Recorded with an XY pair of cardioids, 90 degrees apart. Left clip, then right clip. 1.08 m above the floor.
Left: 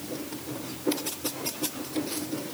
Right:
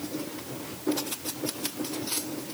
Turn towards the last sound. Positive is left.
No sound to turn to.